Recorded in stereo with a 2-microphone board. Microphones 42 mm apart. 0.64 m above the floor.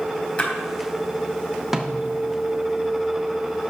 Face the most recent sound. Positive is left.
turn(degrees=-10)  # may be behind; listen again after turning